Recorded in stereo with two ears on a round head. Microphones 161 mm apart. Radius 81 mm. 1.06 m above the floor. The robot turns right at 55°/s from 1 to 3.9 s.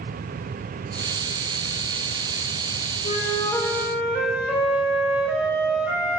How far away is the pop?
No pop in this recording.